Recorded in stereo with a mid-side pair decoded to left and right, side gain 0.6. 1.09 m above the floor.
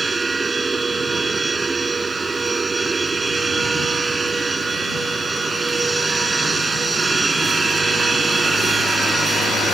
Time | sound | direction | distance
0.0 | a machine running | 20° right | ?